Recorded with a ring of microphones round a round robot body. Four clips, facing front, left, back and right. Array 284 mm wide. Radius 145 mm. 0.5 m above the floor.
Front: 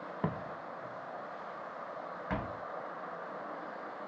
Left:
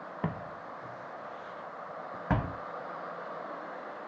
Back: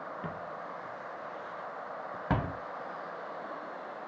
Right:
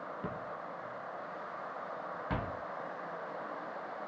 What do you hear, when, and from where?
0.2 s footsteps: 45° left, 0.7 m; by 2.6 s 145° left, 1.4 m